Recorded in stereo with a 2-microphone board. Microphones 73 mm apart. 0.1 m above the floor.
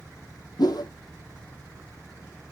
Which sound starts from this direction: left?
A whoosh, at 0.6 s.